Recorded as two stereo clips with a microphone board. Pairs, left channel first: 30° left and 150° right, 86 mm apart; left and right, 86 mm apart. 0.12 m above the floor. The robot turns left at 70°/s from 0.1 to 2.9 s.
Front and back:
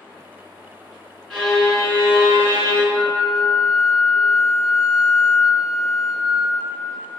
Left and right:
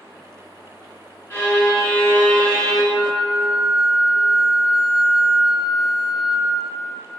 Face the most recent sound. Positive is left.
turn(degrees=0)